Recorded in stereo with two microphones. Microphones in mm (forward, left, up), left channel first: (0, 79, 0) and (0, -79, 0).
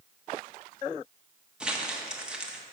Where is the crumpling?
5° right (ahead or behind), 0.9 m.